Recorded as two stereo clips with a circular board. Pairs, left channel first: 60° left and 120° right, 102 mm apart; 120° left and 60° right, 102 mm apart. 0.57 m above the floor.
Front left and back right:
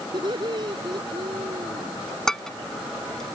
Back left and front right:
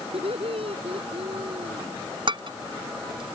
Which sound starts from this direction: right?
Laughter, at 0.1 s.